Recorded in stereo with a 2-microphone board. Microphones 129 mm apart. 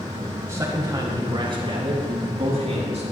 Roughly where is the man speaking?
Right.